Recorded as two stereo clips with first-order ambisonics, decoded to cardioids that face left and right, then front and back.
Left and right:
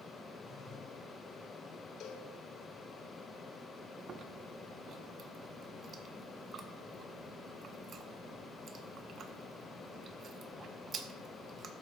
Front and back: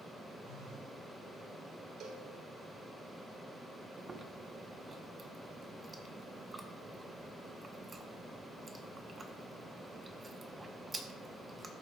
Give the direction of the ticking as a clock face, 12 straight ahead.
No ticking in this recording.